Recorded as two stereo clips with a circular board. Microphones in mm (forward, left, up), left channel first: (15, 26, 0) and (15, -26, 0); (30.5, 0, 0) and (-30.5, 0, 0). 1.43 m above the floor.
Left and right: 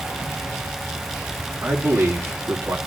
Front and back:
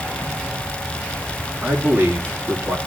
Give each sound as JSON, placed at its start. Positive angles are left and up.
{"t": 1.6, "sound": "a man speaking", "azimuth_deg": -120, "distance_m": 3.5}